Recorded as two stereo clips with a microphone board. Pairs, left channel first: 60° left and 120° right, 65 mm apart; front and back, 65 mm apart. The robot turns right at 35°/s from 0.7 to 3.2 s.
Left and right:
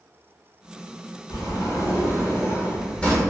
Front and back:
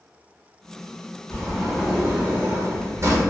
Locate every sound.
1.3 s a sliding door: 75° left, 0.8 m; by 3.2 s 140° left, 0.8 m